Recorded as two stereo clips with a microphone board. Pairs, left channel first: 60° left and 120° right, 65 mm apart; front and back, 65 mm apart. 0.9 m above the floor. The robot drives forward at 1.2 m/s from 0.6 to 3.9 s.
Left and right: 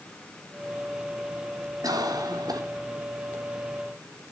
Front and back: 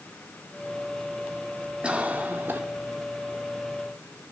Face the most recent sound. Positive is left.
turn(degrees=-145)